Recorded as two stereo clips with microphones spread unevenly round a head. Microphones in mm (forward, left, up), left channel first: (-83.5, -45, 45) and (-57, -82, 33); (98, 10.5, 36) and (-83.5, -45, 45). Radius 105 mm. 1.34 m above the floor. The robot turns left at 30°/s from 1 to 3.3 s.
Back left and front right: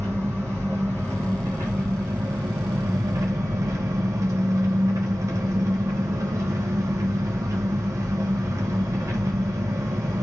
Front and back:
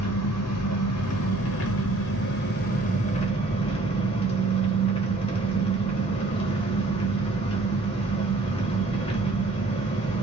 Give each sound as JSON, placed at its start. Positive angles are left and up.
{"t": 0.0, "sound": "an engine running", "azimuth_deg": 25, "distance_m": 0.7}